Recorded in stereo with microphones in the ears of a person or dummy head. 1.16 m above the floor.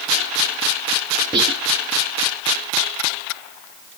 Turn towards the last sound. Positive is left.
turn(degrees=-25)  # may be behind; listen again after turning